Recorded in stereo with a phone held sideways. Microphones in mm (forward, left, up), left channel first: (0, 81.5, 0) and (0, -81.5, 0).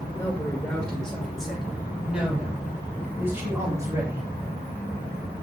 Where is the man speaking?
10° left (ahead or behind), 6.5 m; by 4.3 s 20° right (ahead or behind), 8.5 m.